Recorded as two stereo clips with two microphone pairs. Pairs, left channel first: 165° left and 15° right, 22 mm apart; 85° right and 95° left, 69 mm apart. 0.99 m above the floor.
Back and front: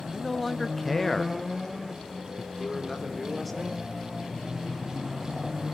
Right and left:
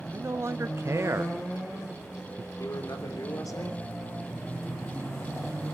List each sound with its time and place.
0.1 s a man speaking: 90° left, 0.5 m
2.6 s a man speaking: 110° right, 3 m